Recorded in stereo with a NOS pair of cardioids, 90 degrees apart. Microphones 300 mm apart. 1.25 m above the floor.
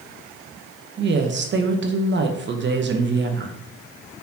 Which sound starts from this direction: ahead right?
A woman speaking, at 1.0 s.